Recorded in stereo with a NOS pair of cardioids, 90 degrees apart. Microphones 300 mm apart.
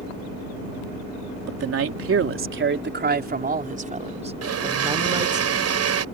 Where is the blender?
55° right.